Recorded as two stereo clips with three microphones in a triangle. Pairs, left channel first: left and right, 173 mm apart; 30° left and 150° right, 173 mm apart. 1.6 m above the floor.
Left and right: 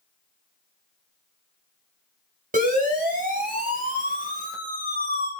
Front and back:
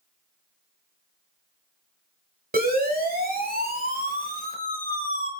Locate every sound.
2.5 s a siren: 125° right, 8.5 m; by 5.3 s 120° right, 7.5 m